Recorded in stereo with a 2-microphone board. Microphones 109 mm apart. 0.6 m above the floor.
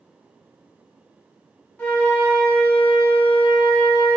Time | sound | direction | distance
1.8 | a flute | 15° left (ahead or behind) | 0.8 m